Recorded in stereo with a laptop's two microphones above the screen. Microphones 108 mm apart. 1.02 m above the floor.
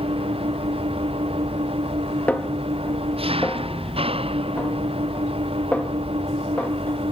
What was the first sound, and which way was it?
An engine running, 60° right (ahead or behind).